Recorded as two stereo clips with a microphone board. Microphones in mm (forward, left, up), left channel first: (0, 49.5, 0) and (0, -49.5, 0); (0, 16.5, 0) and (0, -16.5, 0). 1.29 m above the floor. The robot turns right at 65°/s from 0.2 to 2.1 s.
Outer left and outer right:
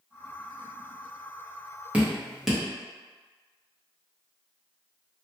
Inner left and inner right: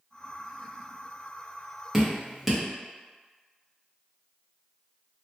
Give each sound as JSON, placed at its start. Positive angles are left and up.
{"t": 1.9, "sound": "dripping", "side_deg": -15, "distance_m": 0.9}